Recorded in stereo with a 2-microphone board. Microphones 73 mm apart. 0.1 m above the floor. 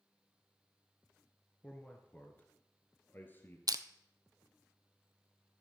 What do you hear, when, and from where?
1.6 s a man speaking: 15° left (ahead or behind), 1.3 m; by 3.6 s 30° left (ahead or behind), 1.9 m
3.7 s crushing: 60° right (ahead or behind), 0.5 m